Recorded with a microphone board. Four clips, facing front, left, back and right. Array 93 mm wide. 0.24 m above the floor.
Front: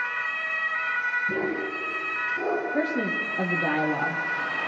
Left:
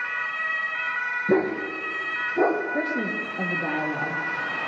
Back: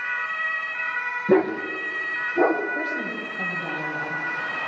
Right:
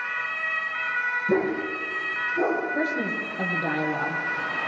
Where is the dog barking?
150° left, 6.5 m; by 2.6 s 140° left, 7.5 m.